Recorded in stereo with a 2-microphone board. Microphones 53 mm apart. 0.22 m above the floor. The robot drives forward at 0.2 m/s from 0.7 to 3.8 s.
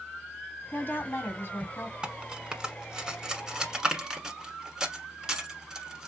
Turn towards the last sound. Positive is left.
turn(degrees=-10)  # may be behind; listen again after turning